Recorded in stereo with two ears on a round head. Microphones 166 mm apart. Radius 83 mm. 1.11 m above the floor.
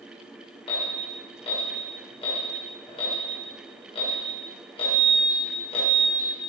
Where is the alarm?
35° left (ahead or behind), 6 m.